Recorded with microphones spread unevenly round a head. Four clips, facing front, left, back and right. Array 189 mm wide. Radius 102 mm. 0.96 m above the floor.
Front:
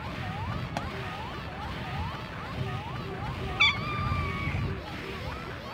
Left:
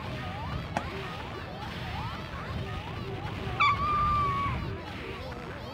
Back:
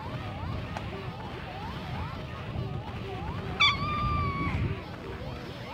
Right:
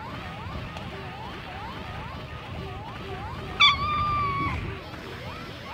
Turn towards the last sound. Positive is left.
turn(degrees=-130)